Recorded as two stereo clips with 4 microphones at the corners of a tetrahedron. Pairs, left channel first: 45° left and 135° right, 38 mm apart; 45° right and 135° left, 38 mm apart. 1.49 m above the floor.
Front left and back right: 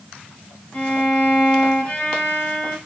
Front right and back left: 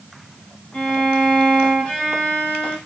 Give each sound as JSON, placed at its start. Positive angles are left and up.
{"t": 0.7, "sound": "a violin", "azimuth_deg": -5, "distance_m": 1.5}